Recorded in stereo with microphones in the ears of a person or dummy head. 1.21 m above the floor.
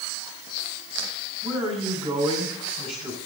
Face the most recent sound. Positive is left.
turn(degrees=-25)  # may be behind; listen again after turning